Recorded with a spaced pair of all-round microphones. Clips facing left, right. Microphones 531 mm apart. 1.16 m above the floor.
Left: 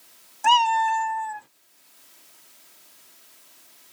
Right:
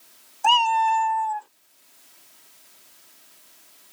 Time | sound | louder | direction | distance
0.4 | a cat meowing | even | 40° left (ahead or behind) | ?